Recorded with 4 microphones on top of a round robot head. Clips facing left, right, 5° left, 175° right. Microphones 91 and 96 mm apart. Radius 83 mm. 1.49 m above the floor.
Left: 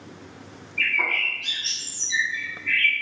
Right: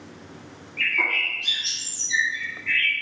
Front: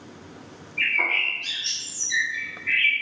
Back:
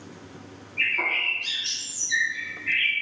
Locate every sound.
0.8 s a bird: 120° right, 1.4 m